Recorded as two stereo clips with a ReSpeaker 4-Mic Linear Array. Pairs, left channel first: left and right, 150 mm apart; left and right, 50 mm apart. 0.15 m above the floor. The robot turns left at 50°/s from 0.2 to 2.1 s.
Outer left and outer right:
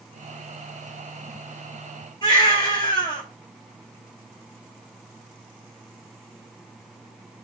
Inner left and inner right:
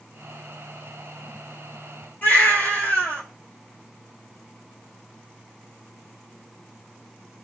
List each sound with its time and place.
2.2 s a baby crying: 30° left (ahead or behind), 1.8 m